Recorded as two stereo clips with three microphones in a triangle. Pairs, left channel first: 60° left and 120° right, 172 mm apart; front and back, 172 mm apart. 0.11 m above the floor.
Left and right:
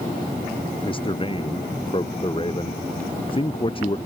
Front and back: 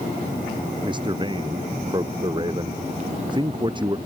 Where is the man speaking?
120° left.